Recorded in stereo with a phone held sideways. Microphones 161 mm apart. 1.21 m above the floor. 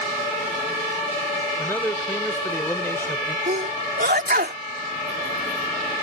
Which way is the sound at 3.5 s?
70° right (ahead or behind).